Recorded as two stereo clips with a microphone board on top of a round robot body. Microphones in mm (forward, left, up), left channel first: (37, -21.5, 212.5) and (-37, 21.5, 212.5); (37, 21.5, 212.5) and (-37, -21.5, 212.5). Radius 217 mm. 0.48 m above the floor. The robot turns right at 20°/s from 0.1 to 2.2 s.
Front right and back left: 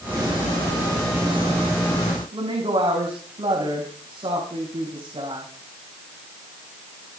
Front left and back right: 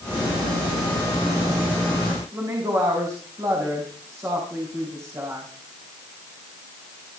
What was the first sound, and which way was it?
A woman speaking, 155° left.